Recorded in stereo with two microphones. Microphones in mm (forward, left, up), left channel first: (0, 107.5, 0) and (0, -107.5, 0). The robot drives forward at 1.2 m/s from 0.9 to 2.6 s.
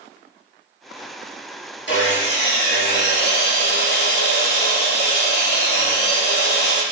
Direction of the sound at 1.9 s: 60° left (ahead or behind).